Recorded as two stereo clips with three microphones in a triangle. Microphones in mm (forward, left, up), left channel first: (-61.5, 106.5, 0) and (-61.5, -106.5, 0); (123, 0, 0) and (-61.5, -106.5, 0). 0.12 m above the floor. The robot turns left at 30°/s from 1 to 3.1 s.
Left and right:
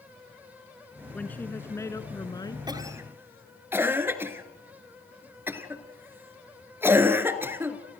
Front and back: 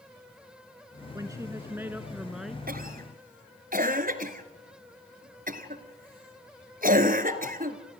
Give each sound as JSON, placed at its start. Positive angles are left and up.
{"t": 1.1, "sound": "a woman speaking", "azimuth_deg": 165, "distance_m": 1.1}
{"t": 2.7, "sound": "a cough", "azimuth_deg": -155, "distance_m": 1.6}